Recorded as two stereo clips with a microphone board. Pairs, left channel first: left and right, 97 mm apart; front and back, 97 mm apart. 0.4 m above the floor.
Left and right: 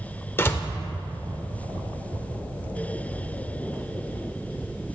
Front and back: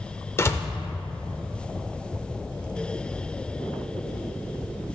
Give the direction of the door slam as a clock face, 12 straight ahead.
11 o'clock.